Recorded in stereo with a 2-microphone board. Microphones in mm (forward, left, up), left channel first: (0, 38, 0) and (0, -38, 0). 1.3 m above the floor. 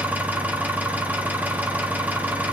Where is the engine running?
20° right (ahead or behind), 1.1 m.